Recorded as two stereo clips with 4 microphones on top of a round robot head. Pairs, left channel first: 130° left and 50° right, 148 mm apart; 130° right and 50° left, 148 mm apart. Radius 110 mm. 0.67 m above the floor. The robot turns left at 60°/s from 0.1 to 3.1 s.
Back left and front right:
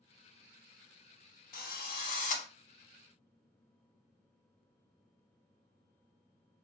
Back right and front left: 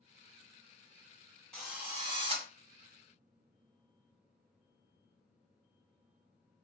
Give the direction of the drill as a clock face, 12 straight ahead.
7 o'clock.